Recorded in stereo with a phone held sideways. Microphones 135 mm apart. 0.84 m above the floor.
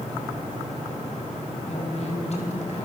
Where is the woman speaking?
50° left (ahead or behind), 7 m; by 2.9 s 60° left (ahead or behind), 6.5 m.